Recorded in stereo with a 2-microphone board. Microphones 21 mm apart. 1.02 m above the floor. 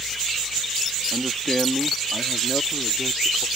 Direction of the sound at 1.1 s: Centre (ahead or behind).